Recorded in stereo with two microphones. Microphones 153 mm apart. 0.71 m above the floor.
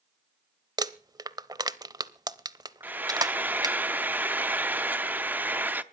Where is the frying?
10° right (ahead or behind), 0.6 m.